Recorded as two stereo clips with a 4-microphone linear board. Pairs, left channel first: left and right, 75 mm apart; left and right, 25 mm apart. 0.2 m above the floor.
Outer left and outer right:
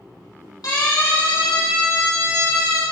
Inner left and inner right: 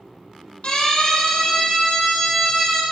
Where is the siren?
55° left (ahead or behind), 7 m; by 2.8 s 45° left (ahead or behind), 6 m.